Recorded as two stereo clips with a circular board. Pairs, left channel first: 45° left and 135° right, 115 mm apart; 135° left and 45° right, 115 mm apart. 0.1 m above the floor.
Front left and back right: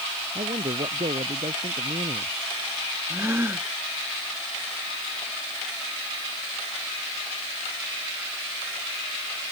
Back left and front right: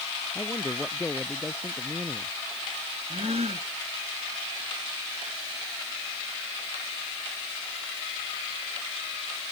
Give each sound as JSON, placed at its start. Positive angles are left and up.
{"t": 0.3, "sound": "a man speaking", "azimuth_deg": -145}
{"t": 3.1, "sound": "a gasp", "azimuth_deg": -65}